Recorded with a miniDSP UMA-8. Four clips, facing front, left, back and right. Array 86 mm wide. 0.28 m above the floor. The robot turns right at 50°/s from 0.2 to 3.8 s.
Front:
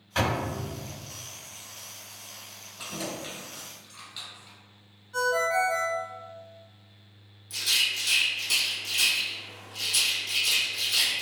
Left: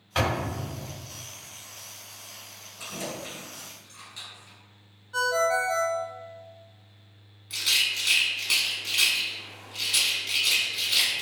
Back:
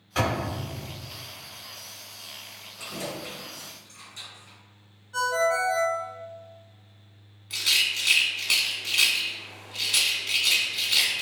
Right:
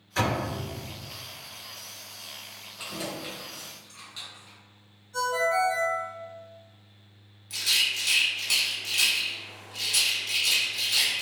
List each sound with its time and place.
0.1 s a door slam: 80° left, 1.5 m; by 0.5 s 95° left, 1.5 m
2.8 s keys jangling: 65° right, 1.0 m; by 4.6 s 10° right, 1.0 m
5.1 s a ringtone: 100° left, 0.6 m
7.5 s a rattle: 165° left, 0.8 m